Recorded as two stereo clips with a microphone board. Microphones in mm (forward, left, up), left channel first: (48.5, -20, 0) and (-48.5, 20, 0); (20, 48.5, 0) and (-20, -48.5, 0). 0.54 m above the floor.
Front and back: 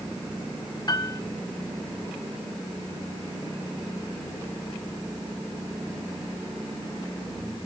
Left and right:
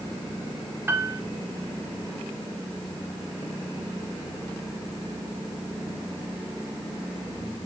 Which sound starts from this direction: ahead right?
A piano, at 0.9 s.